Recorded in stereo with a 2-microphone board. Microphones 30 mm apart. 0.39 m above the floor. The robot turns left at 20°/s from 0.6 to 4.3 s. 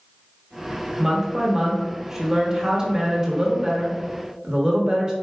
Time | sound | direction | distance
1.0 | a woman speaking | 10° right (ahead or behind) | 1.0 m